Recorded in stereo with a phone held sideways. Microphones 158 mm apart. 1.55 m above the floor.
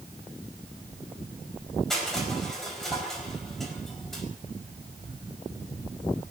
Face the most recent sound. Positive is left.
turn(degrees=0)  # may be behind; listen again after turning